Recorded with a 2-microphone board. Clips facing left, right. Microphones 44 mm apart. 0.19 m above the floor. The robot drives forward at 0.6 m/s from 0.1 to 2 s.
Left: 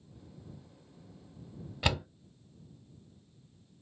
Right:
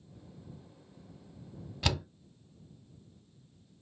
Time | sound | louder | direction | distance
1.8 | a door slam | left 2 dB | 15° left (ahead or behind) | 0.7 m